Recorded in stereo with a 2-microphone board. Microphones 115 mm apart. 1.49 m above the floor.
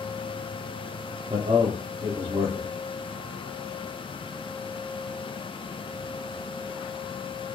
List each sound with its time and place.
1.3 s a man speaking: 45° right (ahead or behind), 0.6 m